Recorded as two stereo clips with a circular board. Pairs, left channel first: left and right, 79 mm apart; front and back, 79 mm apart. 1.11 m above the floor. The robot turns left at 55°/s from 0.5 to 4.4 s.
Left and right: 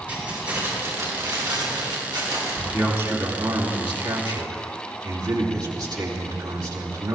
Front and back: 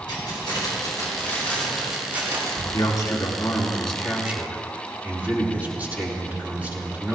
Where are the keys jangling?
20° right, 5 m; by 2.6 s 135° right, 5 m.